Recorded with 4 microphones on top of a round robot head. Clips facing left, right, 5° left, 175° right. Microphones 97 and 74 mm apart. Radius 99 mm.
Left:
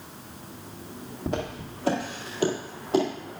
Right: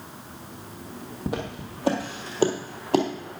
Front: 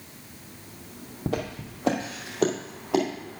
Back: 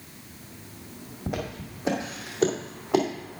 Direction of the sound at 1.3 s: 10° right.